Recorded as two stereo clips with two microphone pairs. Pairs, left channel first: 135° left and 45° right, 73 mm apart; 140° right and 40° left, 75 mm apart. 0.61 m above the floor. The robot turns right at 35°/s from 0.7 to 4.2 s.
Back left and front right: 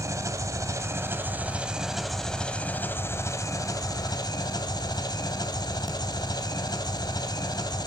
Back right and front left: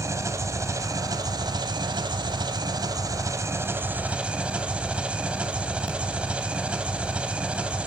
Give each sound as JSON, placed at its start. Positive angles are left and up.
{"t": 0.0, "sound": "an engine running", "azimuth_deg": -5, "distance_m": 1.1}